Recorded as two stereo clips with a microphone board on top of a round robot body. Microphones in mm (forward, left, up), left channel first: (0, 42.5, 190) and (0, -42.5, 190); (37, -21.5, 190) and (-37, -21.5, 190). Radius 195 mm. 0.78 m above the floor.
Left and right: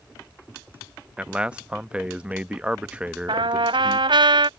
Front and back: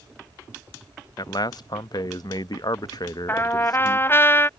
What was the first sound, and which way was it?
A man speaking, 15° right.